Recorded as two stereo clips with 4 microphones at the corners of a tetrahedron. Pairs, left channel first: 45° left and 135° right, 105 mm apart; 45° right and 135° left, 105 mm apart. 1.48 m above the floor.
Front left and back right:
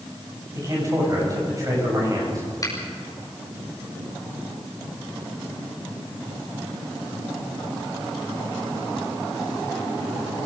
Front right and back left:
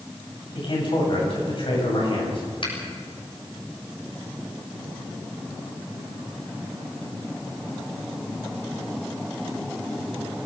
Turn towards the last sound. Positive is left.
turn(degrees=-10)